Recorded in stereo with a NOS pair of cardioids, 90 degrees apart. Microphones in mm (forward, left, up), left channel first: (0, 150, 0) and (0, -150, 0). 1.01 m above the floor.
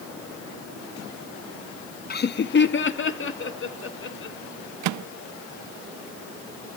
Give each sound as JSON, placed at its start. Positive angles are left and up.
{"t": 2.1, "sound": "laughter", "azimuth_deg": 30, "distance_m": 0.8}
{"t": 4.8, "sound": "a microwave", "azimuth_deg": -65, "distance_m": 0.5}